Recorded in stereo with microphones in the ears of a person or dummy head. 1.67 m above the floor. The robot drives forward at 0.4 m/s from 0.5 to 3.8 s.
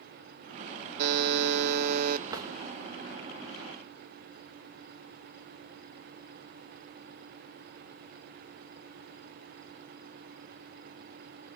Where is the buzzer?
60° right (ahead or behind), 0.6 m; by 2.2 s 50° right (ahead or behind), 0.7 m.